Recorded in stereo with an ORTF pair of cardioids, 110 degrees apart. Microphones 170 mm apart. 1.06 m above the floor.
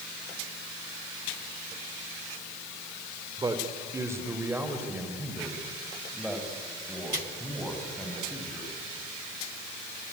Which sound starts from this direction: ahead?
A man speaking, at 3.4 s.